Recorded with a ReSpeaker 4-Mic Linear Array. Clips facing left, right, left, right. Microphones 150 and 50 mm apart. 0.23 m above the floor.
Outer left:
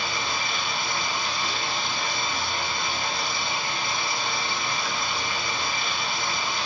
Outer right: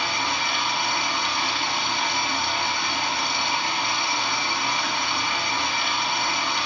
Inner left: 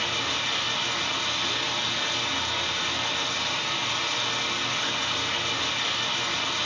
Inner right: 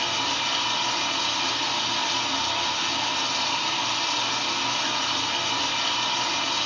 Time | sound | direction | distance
0.0 | running water | 70° right (ahead or behind) | 4 m